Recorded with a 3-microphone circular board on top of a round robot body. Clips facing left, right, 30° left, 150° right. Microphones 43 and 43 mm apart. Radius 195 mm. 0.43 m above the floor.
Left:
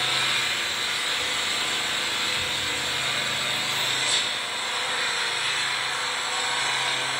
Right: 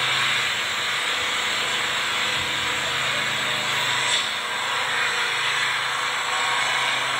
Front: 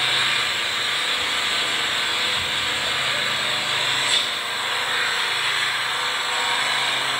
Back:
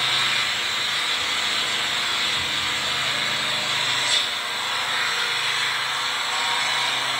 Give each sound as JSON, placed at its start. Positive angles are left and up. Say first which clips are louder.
{"t": 0.0, "sound": "an engine running", "louder": "right 3 dB, front 1 dB", "azimuth_deg": -40, "distance_m": 3.0}